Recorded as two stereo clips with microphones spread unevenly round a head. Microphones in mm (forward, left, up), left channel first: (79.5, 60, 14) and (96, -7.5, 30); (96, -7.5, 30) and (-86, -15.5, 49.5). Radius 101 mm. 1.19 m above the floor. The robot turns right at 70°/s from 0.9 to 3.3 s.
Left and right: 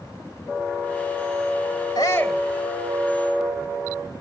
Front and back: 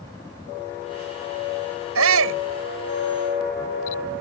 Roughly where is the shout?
Behind.